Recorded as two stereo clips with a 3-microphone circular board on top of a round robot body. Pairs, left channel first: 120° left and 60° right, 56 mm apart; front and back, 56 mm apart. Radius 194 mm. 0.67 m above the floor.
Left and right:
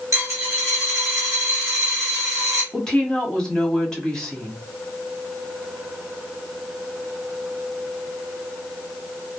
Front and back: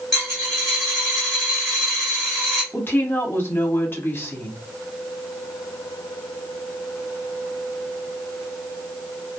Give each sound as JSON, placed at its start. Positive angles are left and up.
{"t": 0.1, "sound": "a dropped coin", "azimuth_deg": -95, "distance_m": 0.6}
{"t": 2.7, "sound": "a woman speaking", "azimuth_deg": 45, "distance_m": 1.5}